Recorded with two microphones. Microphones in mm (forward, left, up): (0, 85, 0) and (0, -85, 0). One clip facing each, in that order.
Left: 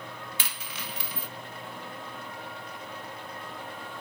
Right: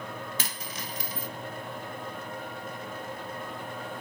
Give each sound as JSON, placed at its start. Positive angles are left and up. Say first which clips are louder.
{"t": 0.4, "sound": "a dropped coin", "louder": "right 3 dB", "side_deg": -45, "distance_m": 0.5}